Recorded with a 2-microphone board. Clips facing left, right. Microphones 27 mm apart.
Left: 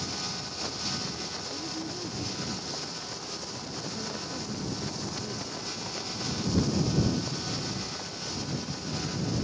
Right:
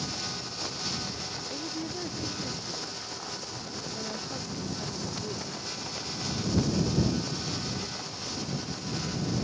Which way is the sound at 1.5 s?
35° right (ahead or behind).